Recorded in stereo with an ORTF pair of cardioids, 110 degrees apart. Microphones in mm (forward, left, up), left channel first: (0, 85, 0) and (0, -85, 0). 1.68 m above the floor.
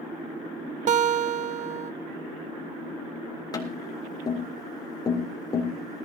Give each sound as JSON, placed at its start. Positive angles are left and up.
{"t": 0.9, "sound": "a guitar", "azimuth_deg": -45, "distance_m": 0.6}
{"t": 3.5, "sound": "tapping", "azimuth_deg": 25, "distance_m": 3.5}